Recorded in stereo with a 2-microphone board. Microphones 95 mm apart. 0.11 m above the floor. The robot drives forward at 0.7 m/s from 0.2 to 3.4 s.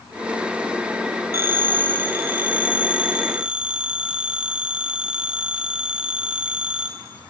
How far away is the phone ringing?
About 0.9 m.